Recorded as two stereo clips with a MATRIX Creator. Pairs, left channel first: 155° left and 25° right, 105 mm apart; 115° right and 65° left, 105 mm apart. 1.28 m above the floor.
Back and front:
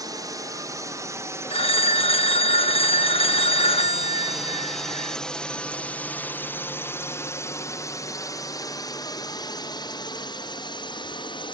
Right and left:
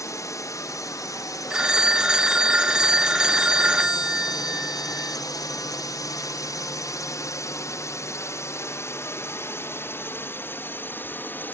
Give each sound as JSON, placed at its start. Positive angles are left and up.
{"t": 0.0, "sound": "a drone", "azimuth_deg": -65}
{"t": 1.5, "sound": "a phone ringing", "azimuth_deg": 150}